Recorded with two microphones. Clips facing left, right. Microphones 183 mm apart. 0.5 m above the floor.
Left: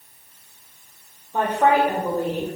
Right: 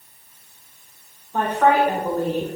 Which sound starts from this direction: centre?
A woman speaking, at 1.3 s.